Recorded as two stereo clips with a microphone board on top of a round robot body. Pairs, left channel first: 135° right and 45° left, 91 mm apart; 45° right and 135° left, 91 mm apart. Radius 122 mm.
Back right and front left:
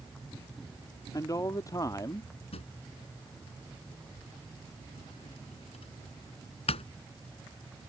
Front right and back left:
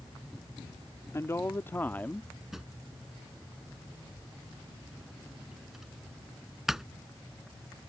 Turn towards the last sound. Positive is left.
turn(degrees=-140)